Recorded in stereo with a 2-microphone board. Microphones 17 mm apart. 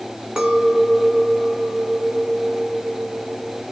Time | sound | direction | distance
0.4 | a clink | 50° right (ahead or behind) | 1.3 m